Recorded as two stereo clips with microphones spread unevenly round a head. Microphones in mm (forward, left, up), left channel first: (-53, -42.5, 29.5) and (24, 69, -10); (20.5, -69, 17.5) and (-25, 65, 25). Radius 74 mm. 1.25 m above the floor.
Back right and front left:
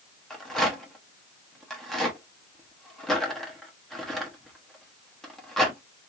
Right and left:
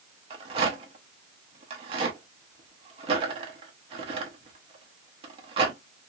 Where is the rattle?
155° left, 1.0 m.